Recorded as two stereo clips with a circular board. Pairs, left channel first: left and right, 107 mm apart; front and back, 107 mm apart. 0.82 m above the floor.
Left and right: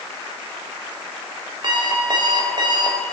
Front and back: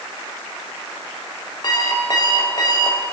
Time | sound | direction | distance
1.6 | an alarm clock | 45° right | 1.7 m